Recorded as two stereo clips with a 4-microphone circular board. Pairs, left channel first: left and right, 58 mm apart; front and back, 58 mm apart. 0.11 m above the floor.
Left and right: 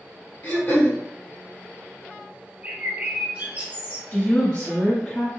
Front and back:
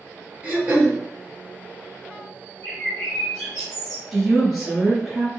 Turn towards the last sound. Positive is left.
turn(degrees=90)